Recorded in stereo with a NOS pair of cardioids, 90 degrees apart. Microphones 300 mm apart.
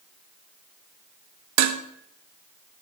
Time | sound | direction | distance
1.6 | dishes clattering | 65° right | 0.8 m